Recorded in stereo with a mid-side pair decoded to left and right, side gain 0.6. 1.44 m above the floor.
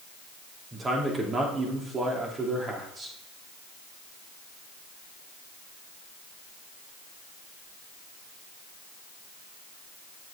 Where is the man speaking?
30° right, 2.5 m.